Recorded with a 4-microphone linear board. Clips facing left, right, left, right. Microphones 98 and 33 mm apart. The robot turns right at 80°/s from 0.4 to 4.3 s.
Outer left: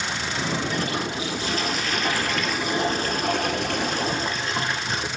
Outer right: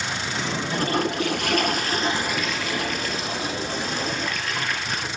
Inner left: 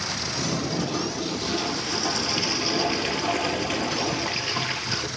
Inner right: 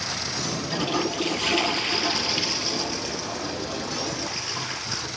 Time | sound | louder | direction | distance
0.7 | a toilet flushing | outer right 3 dB, inner right 2 dB | 140° right | 2.5 m